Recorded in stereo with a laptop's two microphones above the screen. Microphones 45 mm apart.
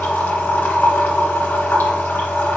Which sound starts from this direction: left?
A machine running, at 0.0 s.